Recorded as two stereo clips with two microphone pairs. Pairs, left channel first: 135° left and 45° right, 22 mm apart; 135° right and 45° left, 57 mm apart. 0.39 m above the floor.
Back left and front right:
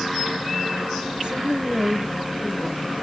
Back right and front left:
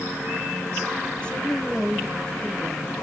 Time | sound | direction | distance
1.2 | a woman speaking | 70° right | 1.5 m